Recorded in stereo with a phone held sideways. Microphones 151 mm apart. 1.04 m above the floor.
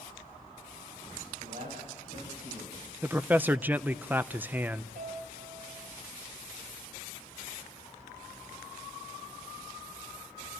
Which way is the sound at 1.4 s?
70° right (ahead or behind).